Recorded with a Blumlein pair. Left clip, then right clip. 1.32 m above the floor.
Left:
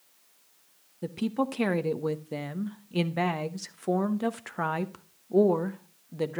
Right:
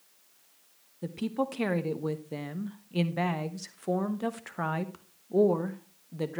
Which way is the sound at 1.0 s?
10° left.